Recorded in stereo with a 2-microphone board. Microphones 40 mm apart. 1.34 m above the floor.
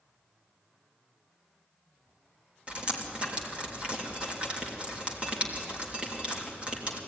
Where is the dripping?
30° right (ahead or behind), 3 m.